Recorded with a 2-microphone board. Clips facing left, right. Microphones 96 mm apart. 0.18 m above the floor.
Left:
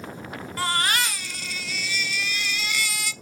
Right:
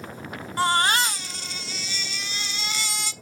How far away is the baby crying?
About 0.6 m.